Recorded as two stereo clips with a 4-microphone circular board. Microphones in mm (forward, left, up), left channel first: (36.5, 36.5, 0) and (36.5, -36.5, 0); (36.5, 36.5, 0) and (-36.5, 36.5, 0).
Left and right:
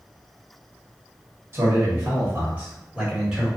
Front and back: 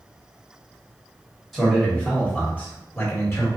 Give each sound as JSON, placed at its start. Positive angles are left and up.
{"t": 1.5, "sound": "a man speaking", "azimuth_deg": -90, "distance_m": 1.6}